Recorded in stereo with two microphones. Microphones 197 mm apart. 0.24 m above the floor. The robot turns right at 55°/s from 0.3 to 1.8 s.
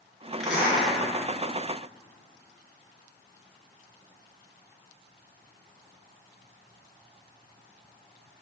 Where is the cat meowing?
I don't hear a cat meowing.